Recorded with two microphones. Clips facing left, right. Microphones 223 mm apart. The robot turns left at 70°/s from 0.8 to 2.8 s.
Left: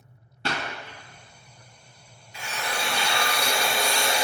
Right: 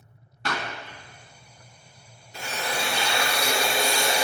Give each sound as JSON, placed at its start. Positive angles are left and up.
{"t": 0.5, "sound": "a clap", "side_deg": 30, "distance_m": 1.2}
{"t": 2.3, "sound": "a drill", "azimuth_deg": -115, "distance_m": 1.4}